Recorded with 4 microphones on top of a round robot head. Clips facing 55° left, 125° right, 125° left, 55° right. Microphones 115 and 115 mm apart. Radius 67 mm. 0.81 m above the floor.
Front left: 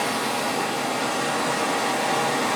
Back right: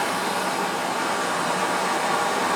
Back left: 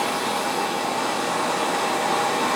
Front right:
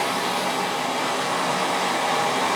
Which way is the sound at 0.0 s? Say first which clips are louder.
Even, even; 40° left.